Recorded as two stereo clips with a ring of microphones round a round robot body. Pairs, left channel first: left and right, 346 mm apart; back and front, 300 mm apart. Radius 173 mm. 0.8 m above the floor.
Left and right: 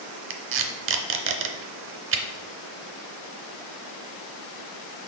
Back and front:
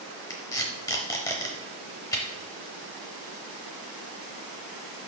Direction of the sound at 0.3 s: 105° right.